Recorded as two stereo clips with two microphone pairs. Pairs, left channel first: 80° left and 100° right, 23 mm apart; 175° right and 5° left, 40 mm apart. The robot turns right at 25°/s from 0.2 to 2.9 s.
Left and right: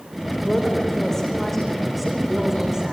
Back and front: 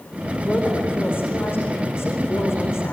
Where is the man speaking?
130° left, 7.5 m; by 2.9 s 165° right, 7.5 m.